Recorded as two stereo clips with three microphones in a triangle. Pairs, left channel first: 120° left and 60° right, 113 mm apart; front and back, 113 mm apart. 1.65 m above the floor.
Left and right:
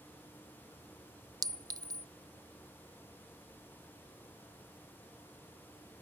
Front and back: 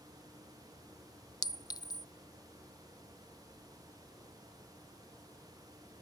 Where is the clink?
30° right.